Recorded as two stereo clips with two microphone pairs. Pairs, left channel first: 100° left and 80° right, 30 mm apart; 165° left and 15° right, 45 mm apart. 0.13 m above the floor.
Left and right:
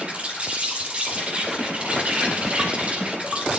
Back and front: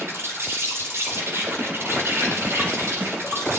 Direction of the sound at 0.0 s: 30° right.